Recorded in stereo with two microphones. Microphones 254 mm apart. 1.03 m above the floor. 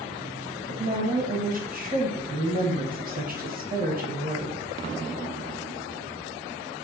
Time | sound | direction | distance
0.7 | a woman speaking | 35° right (ahead or behind) | 0.7 m